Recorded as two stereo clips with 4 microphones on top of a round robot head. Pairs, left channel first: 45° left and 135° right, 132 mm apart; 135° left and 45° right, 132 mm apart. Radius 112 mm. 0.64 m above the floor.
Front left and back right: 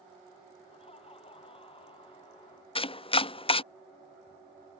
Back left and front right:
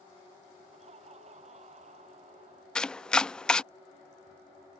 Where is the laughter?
5° right; by 2.6 s 10° right.